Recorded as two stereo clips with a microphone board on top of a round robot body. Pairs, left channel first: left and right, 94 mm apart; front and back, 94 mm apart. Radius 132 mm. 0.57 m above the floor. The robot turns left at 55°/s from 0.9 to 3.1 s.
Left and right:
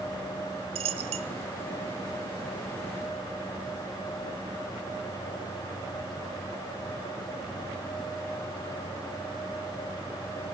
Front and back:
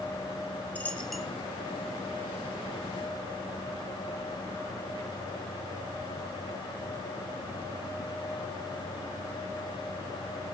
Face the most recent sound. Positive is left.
turn(degrees=160)